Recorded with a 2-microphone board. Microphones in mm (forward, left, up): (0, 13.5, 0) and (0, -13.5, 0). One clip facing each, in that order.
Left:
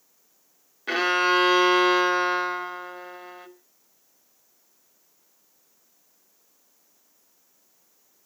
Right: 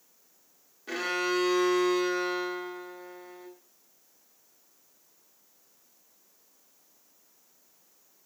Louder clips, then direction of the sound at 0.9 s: Left 8 dB; 45° left (ahead or behind).